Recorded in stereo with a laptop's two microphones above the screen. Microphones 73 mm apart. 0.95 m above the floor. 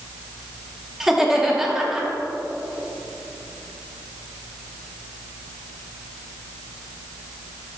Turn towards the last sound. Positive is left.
turn(degrees=-5)  # may be behind; listen again after turning